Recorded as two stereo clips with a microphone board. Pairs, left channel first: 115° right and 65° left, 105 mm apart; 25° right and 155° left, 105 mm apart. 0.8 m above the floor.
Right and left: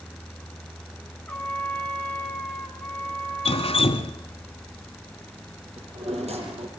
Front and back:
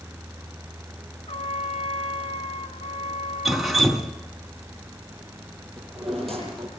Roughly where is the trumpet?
Ahead right.